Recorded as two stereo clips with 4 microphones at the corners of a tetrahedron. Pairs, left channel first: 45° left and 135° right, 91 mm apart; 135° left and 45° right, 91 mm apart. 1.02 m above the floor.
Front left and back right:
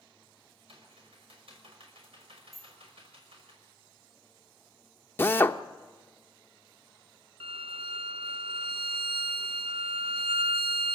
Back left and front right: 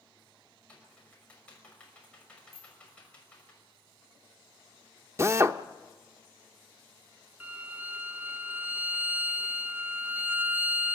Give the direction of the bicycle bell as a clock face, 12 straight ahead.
1 o'clock.